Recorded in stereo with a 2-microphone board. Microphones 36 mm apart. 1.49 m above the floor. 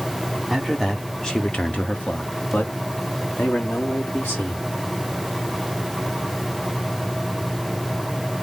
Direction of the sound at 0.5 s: Centre (ahead or behind).